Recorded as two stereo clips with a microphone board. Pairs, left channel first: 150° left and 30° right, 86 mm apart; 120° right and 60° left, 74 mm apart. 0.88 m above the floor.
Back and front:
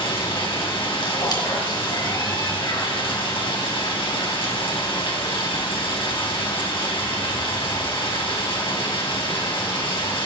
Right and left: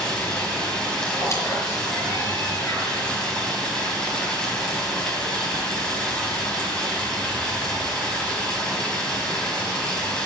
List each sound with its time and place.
0.0 s running water: 160° left, 3.5 m
1.2 s a squeak: 170° right, 5 m